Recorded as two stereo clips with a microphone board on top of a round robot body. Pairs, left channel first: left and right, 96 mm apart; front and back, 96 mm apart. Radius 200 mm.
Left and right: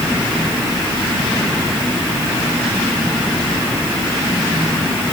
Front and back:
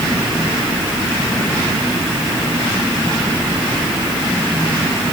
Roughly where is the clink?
No clink in this recording.